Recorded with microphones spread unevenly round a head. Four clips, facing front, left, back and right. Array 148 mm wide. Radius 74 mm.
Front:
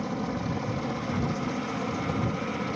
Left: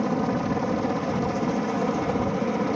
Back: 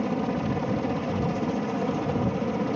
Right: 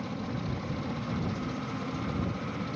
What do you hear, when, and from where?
0.0 s a helicopter: 115° left